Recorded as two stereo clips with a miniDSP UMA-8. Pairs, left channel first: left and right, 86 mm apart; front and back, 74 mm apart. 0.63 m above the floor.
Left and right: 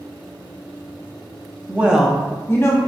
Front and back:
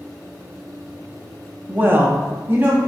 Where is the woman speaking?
135° right, 0.6 m; by 2.8 s 125° left, 0.7 m.